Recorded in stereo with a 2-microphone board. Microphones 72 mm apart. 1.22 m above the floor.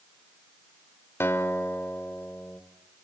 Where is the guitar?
40° left (ahead or behind), 2 m.